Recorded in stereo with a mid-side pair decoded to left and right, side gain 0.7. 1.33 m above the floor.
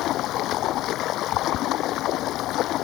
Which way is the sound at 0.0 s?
55° left.